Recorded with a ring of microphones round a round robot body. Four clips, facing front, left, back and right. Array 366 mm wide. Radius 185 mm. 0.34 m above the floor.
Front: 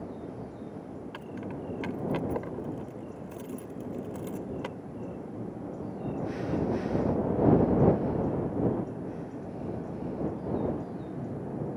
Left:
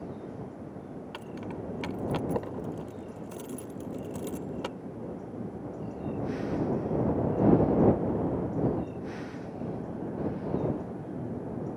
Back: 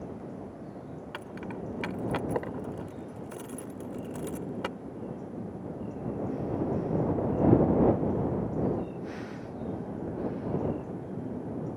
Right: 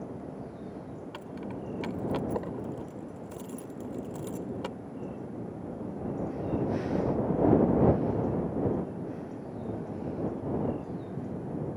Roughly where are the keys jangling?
Behind.